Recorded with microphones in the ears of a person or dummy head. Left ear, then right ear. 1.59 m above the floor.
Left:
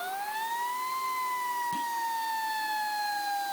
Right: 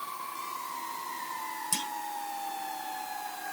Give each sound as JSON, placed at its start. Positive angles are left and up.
{"t": 1.7, "sound": "a clunk", "side_deg": -65}